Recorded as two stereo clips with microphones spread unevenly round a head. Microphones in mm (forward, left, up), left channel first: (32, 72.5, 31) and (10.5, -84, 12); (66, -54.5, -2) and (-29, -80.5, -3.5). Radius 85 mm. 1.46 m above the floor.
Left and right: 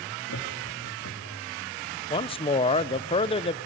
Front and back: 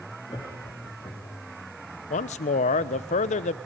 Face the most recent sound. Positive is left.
turn(degrees=25)